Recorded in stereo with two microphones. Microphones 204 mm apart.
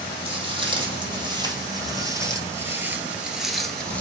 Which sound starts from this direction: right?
Footsteps, at 0.2 s.